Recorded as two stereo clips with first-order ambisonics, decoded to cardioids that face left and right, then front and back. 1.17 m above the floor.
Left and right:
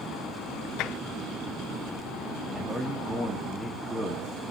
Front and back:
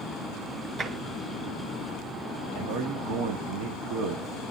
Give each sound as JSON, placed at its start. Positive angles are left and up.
{"t": 0.8, "sound": "tapping", "azimuth_deg": 120, "distance_m": 2.5}
{"t": 2.5, "sound": "a man speaking", "azimuth_deg": -170, "distance_m": 2.5}